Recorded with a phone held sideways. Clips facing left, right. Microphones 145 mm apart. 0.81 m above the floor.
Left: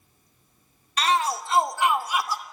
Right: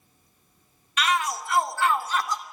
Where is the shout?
35° left (ahead or behind), 1.8 m; by 2.4 s 5° left (ahead or behind), 2 m.